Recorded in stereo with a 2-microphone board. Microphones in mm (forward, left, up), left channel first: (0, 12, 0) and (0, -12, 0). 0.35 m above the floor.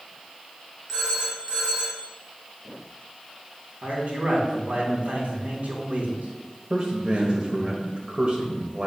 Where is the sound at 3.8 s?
65° right (ahead or behind), 3 m.